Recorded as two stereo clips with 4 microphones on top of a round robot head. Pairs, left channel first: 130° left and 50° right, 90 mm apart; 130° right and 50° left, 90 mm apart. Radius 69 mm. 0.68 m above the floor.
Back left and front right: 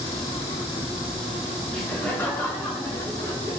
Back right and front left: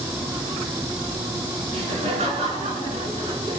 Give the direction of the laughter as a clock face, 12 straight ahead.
10 o'clock.